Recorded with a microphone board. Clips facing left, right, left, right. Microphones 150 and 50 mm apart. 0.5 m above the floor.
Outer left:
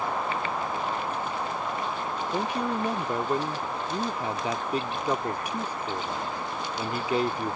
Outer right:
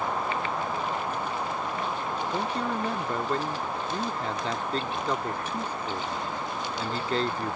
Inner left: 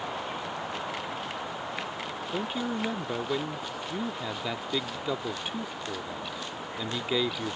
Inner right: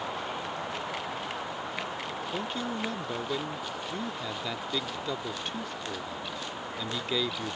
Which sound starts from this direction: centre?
A man speaking, at 2.3 s.